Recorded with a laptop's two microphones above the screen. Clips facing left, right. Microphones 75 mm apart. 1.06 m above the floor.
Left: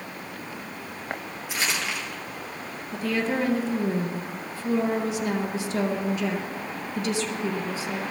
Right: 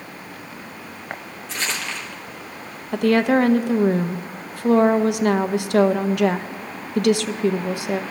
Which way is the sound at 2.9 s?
65° right (ahead or behind).